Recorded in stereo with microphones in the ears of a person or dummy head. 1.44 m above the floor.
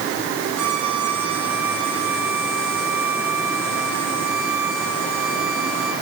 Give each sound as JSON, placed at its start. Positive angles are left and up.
{"t": 0.6, "sound": "a violin", "side_deg": -70, "distance_m": 7.5}